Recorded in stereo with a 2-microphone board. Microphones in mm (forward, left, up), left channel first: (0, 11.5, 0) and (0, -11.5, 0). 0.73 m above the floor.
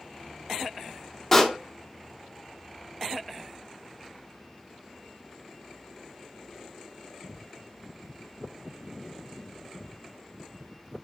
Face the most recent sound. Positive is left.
turn(degrees=15)  # may be behind; listen again after turning